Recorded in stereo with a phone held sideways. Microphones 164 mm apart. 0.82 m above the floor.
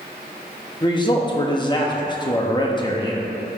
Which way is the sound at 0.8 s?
30° left (ahead or behind).